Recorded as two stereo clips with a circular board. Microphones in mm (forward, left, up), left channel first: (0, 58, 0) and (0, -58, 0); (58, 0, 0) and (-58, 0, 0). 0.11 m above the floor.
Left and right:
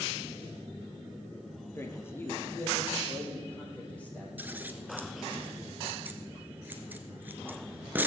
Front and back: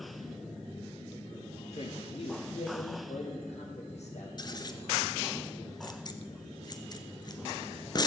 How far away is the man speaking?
About 1.9 m.